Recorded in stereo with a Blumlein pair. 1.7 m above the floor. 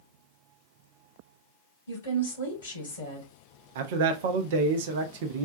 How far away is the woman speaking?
About 1.6 m.